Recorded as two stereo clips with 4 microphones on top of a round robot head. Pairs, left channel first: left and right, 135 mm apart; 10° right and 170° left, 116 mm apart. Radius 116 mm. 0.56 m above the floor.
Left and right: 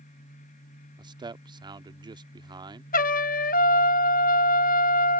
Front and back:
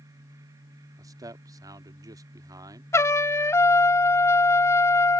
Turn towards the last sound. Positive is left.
turn(degrees=55)